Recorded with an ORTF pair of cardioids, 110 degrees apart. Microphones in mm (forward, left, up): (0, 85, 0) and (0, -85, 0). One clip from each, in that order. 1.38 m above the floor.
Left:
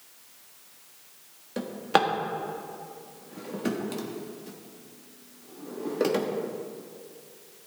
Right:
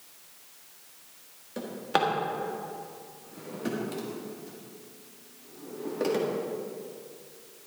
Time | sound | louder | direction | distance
1.6 | a drawer | left 3 dB | 25° left | 1.5 m